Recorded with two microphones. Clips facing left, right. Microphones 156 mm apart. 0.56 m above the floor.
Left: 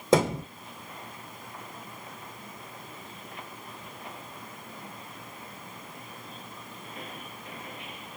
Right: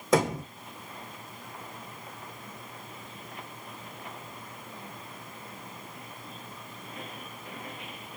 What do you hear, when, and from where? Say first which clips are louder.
0.1 s a thud: left 2 dB; 30° left (ahead or behind), 1.3 m